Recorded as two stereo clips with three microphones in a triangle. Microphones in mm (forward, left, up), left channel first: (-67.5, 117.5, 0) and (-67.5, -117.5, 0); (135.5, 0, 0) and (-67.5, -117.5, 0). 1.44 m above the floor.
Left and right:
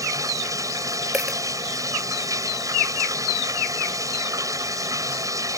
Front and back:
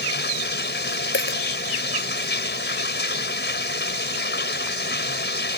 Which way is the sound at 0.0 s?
15° right.